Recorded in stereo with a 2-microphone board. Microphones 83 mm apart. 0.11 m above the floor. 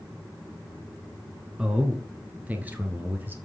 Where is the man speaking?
10° right (ahead or behind), 1.7 m; by 3.4 s 25° right (ahead or behind), 3 m.